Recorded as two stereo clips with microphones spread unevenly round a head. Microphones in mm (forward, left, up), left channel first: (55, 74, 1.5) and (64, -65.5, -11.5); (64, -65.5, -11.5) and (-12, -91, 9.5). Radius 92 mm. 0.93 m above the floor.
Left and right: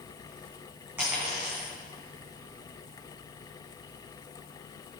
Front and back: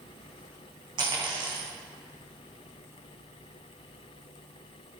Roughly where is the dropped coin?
Behind.